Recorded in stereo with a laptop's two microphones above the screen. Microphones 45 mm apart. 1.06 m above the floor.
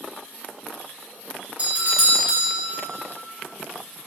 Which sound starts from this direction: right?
A doorbell, at 1.6 s.